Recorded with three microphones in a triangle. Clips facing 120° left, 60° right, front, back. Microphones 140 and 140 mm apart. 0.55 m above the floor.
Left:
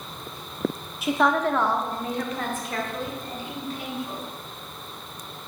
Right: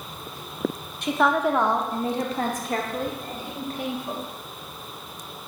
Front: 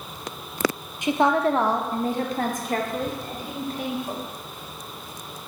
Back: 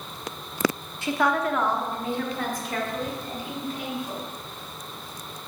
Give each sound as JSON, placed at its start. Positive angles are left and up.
{"t": 1.0, "sound": "a woman speaking", "azimuth_deg": 45, "distance_m": 0.7}